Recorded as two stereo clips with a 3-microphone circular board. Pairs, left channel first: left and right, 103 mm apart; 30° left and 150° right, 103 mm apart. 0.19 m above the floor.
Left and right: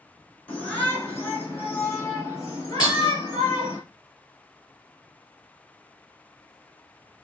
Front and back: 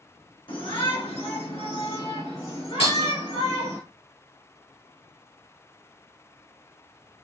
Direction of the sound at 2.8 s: 40° left.